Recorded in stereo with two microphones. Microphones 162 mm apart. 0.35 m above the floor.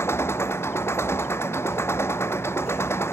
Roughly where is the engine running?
Centre.